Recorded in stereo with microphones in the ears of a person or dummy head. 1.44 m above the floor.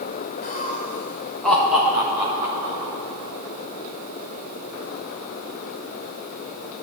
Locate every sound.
0.4 s laughter: 40° left (ahead or behind), 0.9 m; by 2.9 s 20° right (ahead or behind), 1.8 m